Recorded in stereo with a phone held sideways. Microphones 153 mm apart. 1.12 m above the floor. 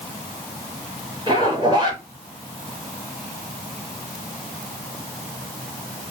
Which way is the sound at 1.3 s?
30° right (ahead or behind).